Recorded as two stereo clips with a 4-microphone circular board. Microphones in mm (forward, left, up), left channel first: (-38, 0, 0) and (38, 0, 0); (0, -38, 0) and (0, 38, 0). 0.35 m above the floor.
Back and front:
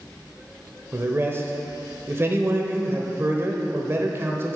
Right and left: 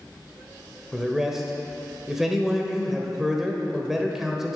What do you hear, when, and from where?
0.9 s a man speaking: 10° left, 1.0 m